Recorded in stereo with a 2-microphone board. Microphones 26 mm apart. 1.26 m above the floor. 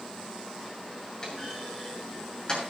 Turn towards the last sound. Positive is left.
turn(degrees=30)  # may be behind; listen again after turning